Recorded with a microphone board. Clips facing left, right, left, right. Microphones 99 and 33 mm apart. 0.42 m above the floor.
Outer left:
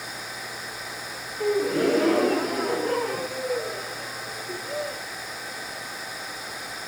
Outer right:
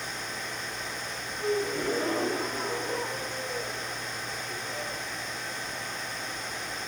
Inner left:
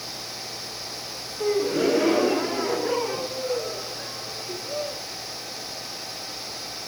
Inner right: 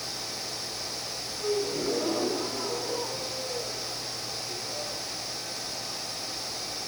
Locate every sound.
1.4 s a gasp: 80° left, 1.5 m